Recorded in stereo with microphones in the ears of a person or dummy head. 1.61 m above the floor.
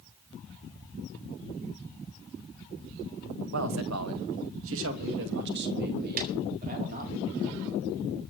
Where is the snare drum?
50° right (ahead or behind), 4.5 m.